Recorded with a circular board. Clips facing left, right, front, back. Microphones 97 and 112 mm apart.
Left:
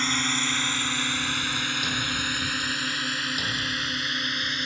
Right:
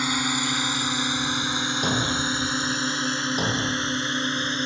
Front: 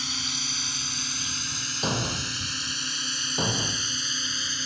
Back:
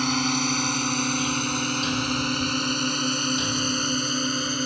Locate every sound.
0.0 s a drone: 165° right; by 4.7 s 145° right
1.8 s a thud: 45° right